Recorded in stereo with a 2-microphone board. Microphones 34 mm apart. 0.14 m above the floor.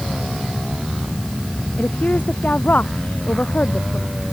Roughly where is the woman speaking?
Left.